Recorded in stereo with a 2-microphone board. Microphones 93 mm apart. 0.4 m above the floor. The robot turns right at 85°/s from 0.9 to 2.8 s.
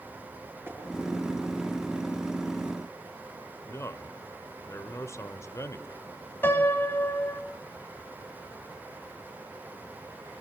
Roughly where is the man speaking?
Left.